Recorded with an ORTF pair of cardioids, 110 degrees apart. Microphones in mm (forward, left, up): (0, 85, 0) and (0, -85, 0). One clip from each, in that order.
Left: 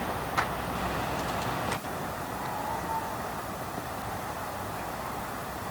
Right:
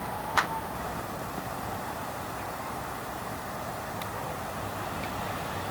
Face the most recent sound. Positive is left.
turn(degrees=-60)